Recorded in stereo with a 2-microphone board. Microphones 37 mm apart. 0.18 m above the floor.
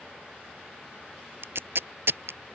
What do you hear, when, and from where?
1.4 s tape being pulled: 75° right (ahead or behind)